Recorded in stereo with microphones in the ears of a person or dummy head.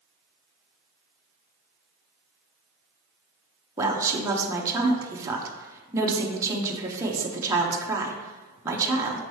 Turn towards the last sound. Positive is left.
turn(degrees=-10)  # may be behind; listen again after turning